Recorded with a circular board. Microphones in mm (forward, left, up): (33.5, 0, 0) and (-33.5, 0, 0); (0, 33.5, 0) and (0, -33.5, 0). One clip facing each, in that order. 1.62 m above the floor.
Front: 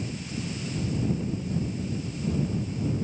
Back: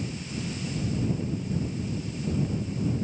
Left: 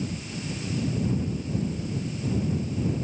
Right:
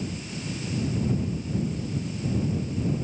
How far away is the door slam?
No door slam in this recording.